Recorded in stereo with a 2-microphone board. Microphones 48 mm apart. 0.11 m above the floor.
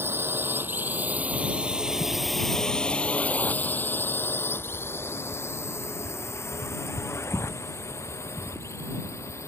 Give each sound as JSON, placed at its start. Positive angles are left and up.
{"t": 0.0, "sound": "a drone", "side_deg": -55}